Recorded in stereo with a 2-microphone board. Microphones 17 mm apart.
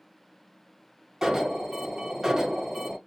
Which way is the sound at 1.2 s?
25° right (ahead or behind).